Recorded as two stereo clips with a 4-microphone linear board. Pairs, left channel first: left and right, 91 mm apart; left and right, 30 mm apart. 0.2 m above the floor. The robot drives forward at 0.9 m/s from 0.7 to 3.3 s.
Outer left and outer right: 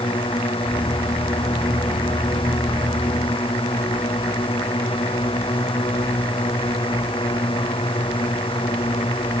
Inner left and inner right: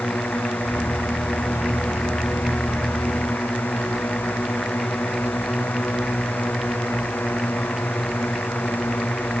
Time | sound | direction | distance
0.0 | a drone | 80° left | ?